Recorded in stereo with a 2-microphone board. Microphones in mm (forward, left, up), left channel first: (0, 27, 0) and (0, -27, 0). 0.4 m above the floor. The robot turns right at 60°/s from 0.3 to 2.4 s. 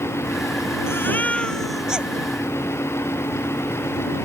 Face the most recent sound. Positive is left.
turn(degrees=-140)